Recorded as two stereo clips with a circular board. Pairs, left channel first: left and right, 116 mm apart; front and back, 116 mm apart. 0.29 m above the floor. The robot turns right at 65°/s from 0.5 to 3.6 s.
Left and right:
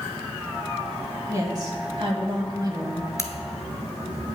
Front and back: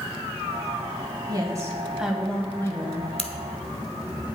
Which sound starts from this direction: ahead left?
A crack, at 3.2 s.